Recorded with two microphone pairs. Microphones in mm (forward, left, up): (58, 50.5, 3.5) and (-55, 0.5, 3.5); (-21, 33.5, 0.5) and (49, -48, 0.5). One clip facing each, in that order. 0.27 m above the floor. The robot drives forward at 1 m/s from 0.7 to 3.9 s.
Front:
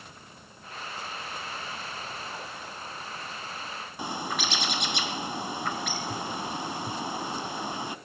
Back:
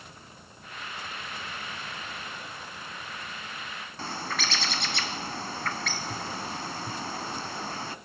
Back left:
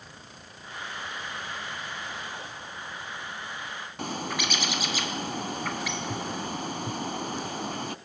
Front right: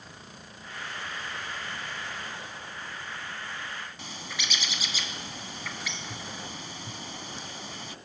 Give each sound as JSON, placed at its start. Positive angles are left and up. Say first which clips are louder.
{"t": 4.0, "sound": "a bird", "louder": "front 2 dB, back left 9 dB", "azimuth_deg": 95, "distance_m": 0.7}